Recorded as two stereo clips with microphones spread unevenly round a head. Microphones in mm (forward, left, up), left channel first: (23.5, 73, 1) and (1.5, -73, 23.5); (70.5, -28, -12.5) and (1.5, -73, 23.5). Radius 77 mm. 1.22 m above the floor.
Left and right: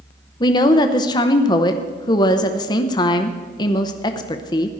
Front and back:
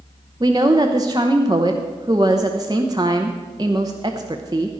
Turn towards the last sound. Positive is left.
turn(degrees=145)